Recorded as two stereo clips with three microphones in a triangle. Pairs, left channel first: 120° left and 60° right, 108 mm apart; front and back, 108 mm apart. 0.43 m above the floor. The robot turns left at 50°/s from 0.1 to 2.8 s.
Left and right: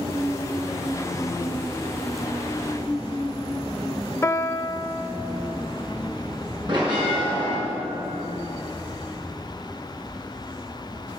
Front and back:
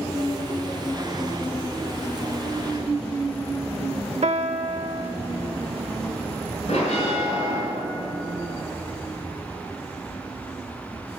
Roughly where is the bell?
Ahead.